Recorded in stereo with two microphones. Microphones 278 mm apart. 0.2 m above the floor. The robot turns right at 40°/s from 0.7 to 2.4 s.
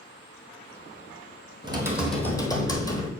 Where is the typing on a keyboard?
20° right, 1.1 m; by 3.1 s 15° left, 1.1 m.